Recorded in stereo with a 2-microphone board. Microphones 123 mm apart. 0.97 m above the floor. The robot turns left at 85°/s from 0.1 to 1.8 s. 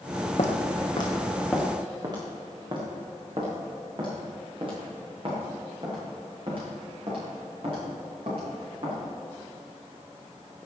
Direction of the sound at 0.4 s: 65° left (ahead or behind).